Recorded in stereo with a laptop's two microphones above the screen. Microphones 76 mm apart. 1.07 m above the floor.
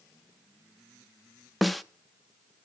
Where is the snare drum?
Centre (ahead or behind), 0.7 m.